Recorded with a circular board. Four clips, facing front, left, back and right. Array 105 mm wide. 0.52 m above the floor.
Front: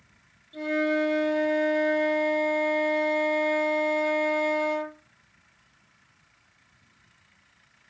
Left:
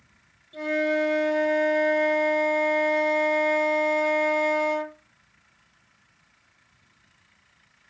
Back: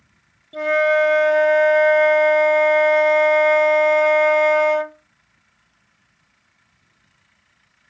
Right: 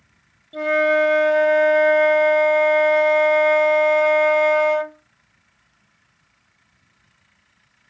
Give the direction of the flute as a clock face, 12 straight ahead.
5 o'clock.